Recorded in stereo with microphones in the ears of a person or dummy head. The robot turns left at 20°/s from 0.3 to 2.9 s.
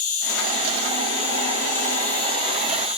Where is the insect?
45° left, 3 m; by 3.0 s 10° right, 3 m.